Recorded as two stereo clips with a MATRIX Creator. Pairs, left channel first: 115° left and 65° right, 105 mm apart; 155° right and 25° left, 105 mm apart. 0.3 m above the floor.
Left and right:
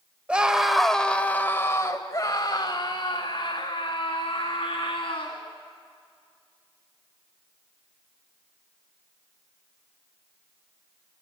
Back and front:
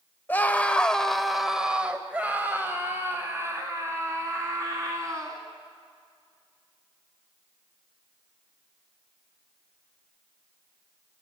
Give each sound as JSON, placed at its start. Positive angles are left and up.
{"t": 0.3, "sound": "a scream", "azimuth_deg": -125, "distance_m": 1.1}